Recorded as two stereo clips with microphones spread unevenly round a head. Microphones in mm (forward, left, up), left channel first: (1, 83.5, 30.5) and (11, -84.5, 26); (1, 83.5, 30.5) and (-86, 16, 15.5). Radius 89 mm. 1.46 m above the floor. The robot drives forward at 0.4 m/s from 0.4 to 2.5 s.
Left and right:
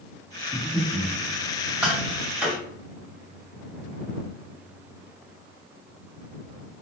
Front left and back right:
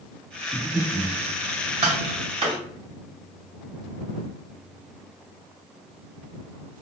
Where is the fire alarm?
No fire alarm in this recording.